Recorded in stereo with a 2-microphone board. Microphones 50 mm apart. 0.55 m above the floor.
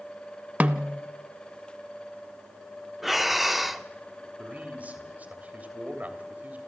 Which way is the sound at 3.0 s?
Centre (ahead or behind).